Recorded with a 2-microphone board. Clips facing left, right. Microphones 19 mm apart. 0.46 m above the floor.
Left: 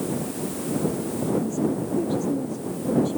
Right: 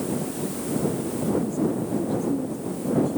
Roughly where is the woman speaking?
Left.